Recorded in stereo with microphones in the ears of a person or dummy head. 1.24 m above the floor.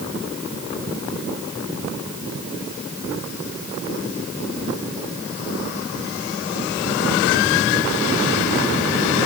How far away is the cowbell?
No cowbell in this recording.